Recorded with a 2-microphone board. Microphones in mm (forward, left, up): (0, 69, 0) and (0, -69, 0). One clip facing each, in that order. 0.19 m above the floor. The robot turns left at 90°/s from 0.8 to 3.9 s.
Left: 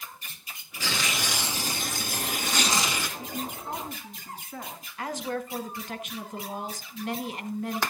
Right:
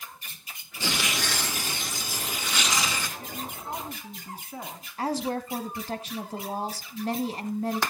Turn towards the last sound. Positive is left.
turn(degrees=-35)  # may be behind; listen again after turning